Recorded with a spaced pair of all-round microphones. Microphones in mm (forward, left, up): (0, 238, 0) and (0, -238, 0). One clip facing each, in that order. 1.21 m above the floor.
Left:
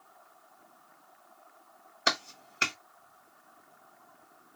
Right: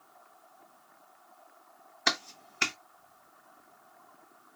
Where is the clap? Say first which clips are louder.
Left 1 dB; 15° right (ahead or behind), 1.1 m.